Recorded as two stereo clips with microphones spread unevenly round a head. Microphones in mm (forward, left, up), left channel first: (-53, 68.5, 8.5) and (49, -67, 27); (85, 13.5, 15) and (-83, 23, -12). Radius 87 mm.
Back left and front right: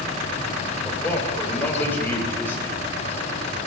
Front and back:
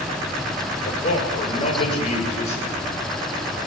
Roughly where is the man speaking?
Ahead left.